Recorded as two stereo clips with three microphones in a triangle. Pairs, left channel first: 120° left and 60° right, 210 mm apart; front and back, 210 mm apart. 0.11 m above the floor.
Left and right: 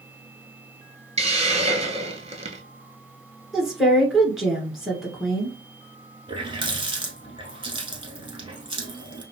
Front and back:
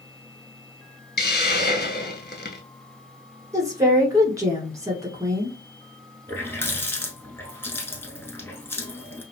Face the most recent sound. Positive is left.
turn(degrees=-60)